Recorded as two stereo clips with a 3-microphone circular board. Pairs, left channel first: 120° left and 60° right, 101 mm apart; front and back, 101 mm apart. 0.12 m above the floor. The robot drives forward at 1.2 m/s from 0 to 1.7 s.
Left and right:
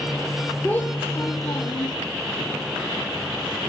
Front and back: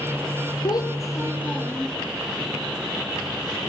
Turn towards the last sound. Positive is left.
turn(degrees=80)